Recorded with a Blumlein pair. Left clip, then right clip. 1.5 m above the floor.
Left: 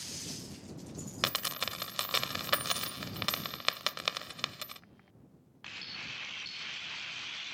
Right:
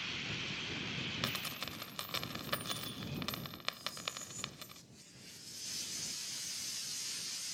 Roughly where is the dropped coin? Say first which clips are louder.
Left 6 dB; ahead left.